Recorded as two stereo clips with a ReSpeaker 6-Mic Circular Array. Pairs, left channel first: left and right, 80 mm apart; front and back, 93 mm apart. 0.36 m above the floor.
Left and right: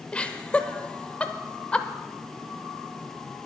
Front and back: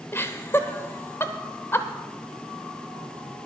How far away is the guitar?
I don't hear a guitar.